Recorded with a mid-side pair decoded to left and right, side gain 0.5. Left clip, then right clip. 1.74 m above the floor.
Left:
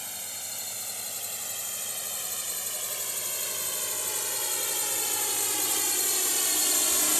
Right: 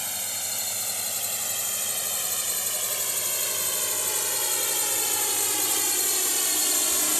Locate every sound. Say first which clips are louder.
0.0 s a drone: right 6 dB; 40° right; by 7.2 s 5° right